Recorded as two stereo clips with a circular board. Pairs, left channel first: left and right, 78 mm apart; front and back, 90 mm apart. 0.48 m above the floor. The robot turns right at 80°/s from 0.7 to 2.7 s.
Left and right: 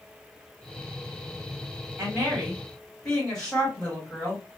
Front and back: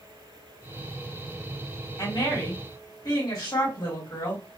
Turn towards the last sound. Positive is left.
turn(degrees=15)